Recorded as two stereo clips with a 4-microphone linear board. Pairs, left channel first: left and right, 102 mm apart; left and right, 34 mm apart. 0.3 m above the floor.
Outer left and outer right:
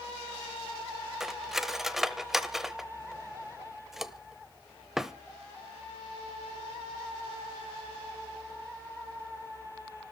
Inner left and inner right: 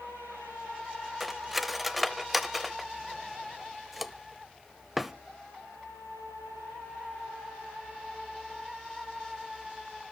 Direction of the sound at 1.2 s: 5° right (ahead or behind).